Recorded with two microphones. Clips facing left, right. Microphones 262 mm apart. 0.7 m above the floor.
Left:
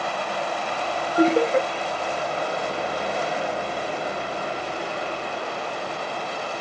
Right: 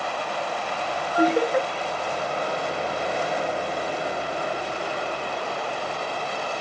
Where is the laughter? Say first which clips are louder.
Left 2 dB; 25° left (ahead or behind), 0.6 m.